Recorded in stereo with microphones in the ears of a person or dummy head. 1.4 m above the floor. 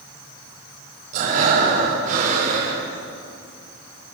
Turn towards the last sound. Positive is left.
turn(degrees=-50)  # may be behind; listen again after turning